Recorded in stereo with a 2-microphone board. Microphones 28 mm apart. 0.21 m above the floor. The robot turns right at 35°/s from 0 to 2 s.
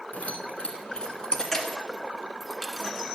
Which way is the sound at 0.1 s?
60° left (ahead or behind).